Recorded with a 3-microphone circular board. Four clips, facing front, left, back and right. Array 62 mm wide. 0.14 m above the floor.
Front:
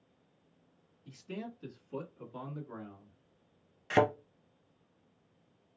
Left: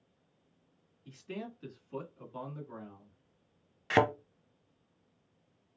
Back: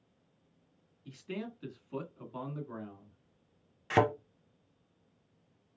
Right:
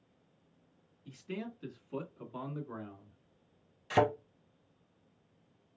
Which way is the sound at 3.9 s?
95° left.